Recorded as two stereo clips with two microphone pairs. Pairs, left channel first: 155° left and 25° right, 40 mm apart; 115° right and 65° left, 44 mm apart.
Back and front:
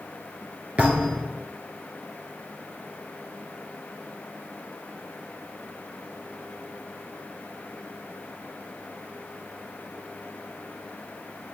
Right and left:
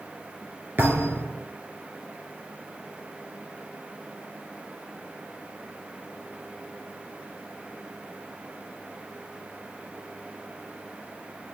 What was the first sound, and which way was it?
A thud, 30° left.